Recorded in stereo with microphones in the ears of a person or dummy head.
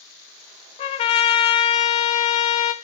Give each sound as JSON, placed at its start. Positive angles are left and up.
{"t": 0.8, "sound": "a trumpet", "side_deg": 35, "distance_m": 1.0}